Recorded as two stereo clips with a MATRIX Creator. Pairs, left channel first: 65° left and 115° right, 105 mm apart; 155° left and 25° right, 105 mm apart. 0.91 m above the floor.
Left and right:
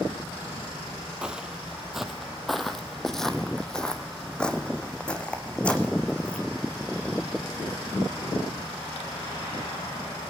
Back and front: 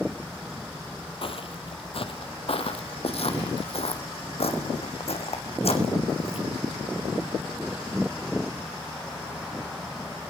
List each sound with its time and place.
1.2 s footsteps: 170° left, 1.7 m; by 6.5 s 145° left, 4 m